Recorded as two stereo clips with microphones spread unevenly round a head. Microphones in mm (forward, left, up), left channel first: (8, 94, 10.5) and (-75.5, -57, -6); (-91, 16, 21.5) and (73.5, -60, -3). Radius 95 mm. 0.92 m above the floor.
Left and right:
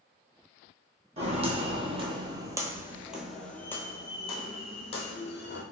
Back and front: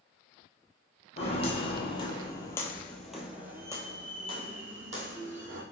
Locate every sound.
1.2 s footsteps: 165° right, 1.4 m; by 5.6 s 25° left, 1.5 m